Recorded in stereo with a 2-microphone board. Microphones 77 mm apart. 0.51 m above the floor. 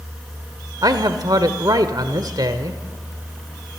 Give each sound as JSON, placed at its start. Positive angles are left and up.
{"t": 0.8, "sound": "a man speaking", "side_deg": -60, "distance_m": 1.4}